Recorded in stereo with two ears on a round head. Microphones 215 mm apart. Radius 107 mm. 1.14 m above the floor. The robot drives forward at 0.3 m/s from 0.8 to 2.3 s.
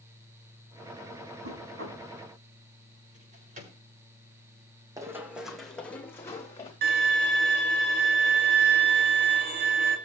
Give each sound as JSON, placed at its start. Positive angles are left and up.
{"t": 1.4, "sound": "knocking", "side_deg": -50, "distance_m": 6.5}
{"t": 3.1, "sound": "a drawer", "side_deg": -35, "distance_m": 7.0}
{"t": 5.0, "sound": "running footsteps", "side_deg": -15, "distance_m": 2.0}
{"t": 6.8, "sound": "a violin", "side_deg": -45, "distance_m": 2.0}